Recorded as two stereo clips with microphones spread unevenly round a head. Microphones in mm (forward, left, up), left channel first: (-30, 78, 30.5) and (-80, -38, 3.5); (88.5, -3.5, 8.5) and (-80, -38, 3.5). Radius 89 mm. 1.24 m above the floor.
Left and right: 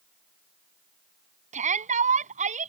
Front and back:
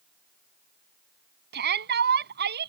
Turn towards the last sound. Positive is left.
turn(degrees=-140)